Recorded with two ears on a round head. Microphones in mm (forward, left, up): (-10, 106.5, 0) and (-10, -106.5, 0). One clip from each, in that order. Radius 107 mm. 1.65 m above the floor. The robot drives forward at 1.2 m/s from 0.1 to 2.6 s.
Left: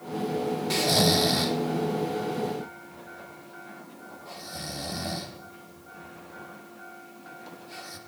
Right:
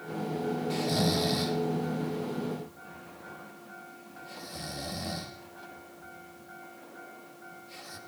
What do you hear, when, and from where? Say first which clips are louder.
0.7 s snoring: left 8 dB; 35° left (ahead or behind), 0.5 m; by 8.0 s 5° left (ahead or behind), 2.5 m